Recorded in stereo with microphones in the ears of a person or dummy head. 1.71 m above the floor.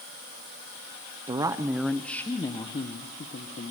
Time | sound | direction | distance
1.3 | a woman speaking | 25° right (ahead or behind) | 0.9 m